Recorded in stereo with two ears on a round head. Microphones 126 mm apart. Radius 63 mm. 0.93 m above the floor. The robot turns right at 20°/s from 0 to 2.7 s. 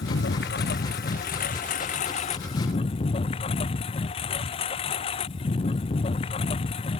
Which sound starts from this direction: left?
A lawn mower, at 0.0 s.